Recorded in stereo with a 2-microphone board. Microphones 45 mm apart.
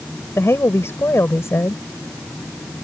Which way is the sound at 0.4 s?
65° left (ahead or behind).